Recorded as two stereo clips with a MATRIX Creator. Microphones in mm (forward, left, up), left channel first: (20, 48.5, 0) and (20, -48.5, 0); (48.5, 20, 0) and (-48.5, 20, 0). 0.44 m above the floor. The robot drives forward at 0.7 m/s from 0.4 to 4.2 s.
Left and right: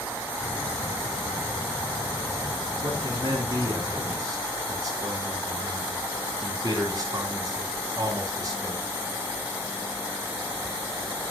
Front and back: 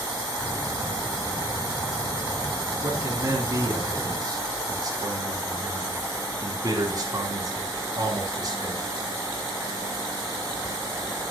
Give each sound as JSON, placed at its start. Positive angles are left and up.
{"t": 2.8, "sound": "a man speaking", "azimuth_deg": -125, "distance_m": 3.5}